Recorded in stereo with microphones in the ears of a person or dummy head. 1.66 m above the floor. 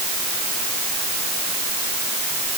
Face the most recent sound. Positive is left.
No sound to turn to.